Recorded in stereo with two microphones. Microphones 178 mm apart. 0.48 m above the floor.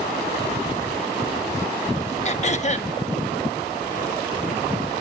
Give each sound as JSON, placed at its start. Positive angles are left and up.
{"t": 2.2, "sound": "throat clearing", "side_deg": 40, "distance_m": 0.6}